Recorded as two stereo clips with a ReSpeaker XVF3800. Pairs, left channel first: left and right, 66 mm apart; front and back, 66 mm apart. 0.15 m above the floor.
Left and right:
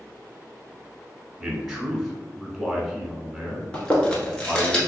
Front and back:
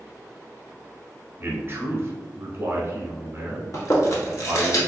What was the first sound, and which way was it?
A man speaking, straight behind.